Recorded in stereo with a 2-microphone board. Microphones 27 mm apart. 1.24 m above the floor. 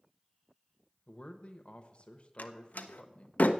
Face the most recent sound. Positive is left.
turn(degrees=85)